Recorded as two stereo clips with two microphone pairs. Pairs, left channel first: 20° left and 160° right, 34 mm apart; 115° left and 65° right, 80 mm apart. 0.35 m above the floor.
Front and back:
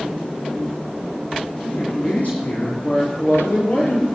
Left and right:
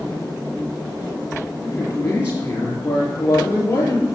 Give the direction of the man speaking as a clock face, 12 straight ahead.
10 o'clock.